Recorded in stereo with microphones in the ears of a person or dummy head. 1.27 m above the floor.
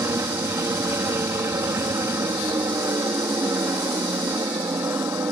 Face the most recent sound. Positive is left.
turn(degrees=-15)  # may be behind; listen again after turning